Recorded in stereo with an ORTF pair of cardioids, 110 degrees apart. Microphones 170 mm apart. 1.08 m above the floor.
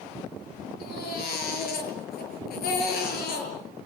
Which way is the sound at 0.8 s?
70° left.